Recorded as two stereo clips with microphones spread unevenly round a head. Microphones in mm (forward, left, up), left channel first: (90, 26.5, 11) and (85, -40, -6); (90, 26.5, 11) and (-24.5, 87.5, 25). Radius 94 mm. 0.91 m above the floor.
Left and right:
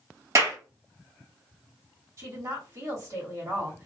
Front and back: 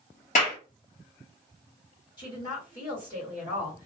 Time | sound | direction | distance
0.3 | a clap | 65° right | 1.9 m
2.2 | a woman speaking | 85° right | 1.7 m